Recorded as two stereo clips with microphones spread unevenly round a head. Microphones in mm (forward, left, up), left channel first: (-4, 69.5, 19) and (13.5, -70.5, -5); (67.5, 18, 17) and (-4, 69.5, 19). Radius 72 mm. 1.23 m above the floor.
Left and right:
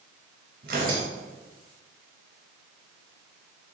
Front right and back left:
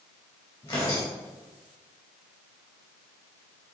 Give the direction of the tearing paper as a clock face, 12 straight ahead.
4 o'clock.